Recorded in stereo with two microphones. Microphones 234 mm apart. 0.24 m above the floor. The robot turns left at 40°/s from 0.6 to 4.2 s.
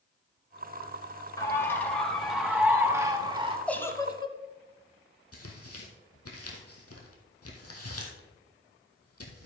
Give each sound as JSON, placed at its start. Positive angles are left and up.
{"t": 1.4, "sound": "a bird", "side_deg": 15, "distance_m": 1.6}
{"t": 3.7, "sound": "a giggle", "side_deg": 5, "distance_m": 0.9}
{"t": 5.3, "sound": "tearing paper", "side_deg": 85, "distance_m": 2.0}